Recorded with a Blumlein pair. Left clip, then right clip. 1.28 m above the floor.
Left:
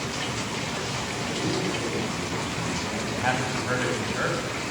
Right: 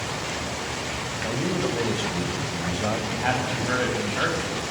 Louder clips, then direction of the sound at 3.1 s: Right 1 dB; straight ahead.